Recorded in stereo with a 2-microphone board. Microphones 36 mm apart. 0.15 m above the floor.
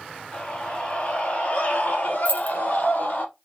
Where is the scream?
25° left (ahead or behind), 2.5 m; by 3.2 s 55° left (ahead or behind), 3.5 m.